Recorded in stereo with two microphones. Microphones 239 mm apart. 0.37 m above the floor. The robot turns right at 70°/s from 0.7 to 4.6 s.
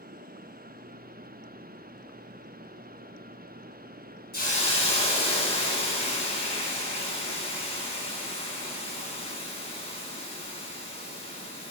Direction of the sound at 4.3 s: 45° left (ahead or behind).